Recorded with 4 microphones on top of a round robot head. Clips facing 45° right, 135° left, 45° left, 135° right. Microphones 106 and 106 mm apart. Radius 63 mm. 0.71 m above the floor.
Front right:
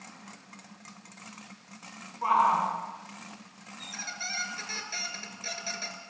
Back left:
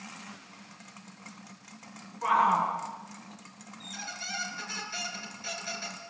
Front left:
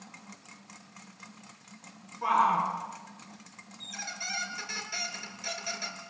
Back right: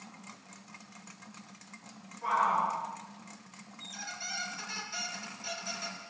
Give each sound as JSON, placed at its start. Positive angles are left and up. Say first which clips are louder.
{"t": 2.2, "sound": "a shout", "louder": "front right 1 dB, front left 3 dB", "azimuth_deg": 15, "distance_m": 7.5}
{"t": 3.8, "sound": "a squeak", "louder": "front right 1 dB, front left 2 dB", "azimuth_deg": 5, "distance_m": 3.5}